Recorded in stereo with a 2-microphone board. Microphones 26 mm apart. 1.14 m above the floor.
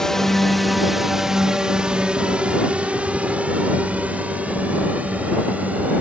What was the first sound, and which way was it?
A drone, 20° left (ahead or behind).